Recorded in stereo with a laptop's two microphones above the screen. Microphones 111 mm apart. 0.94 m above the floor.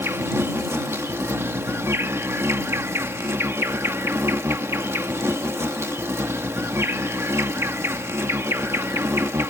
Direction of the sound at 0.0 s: 25° right (ahead or behind).